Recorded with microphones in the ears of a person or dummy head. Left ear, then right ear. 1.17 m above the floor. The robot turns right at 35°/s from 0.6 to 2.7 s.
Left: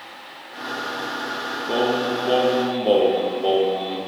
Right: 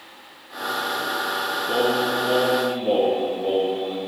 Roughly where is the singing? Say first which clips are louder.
Left 1 dB; ahead.